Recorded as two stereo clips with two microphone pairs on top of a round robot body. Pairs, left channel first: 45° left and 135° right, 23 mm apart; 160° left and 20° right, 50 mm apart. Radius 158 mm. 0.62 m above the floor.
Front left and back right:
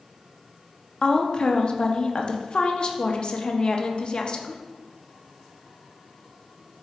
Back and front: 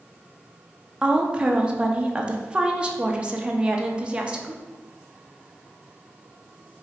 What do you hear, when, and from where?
1.0 s a woman speaking: 40° left, 0.8 m